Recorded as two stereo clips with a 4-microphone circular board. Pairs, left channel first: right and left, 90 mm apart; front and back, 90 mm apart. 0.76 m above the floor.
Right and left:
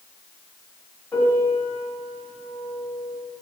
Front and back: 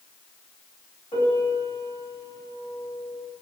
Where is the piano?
20° right, 5 m.